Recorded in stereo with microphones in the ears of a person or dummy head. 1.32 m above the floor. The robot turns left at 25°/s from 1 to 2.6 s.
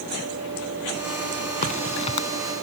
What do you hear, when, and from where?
1.6 s a crack: 45° left (ahead or behind); by 2.3 s 30° left (ahead or behind)